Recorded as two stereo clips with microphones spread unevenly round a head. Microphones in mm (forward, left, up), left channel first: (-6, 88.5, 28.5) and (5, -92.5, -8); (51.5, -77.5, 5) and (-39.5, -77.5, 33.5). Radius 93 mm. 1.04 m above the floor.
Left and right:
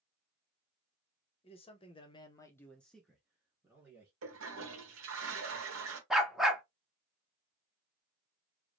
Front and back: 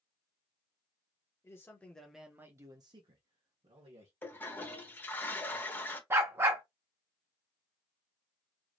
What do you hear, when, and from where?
1.4 s a man speaking: 30° left, 1.1 m; by 4.1 s 155° right, 1.6 m
4.2 s a toilet flushing: 80° right, 1.0 m
6.1 s a dog barking: 170° left, 0.6 m